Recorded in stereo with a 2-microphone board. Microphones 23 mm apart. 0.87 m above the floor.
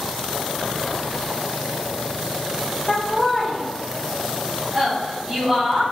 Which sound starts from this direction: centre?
Laughter, at 2.9 s.